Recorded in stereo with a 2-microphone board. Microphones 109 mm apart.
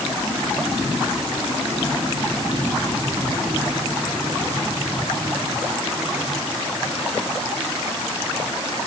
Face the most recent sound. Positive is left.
No sound to turn to.